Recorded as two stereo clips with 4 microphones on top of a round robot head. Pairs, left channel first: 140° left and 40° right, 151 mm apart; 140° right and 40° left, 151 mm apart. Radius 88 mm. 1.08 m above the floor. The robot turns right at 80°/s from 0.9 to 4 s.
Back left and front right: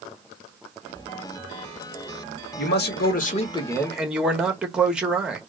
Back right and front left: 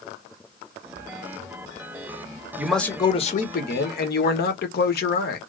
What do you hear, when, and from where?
2.6 s a man speaking: 120° left, 1.3 m; by 5.4 s 125° right, 1.3 m